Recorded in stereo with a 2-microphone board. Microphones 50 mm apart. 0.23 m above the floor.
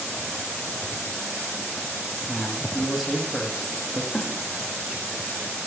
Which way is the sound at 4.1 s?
10° left (ahead or behind).